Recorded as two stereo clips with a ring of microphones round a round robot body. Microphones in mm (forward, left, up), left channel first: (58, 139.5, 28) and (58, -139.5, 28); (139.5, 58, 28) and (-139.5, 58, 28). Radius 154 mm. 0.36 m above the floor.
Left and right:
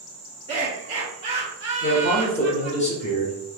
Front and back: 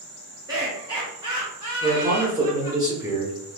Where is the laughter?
125° right, 1.4 m; by 2.8 s 110° right, 2 m.